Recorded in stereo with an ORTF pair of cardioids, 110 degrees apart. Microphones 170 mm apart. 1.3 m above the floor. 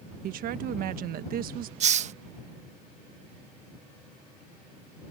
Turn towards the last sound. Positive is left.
turn(degrees=-45)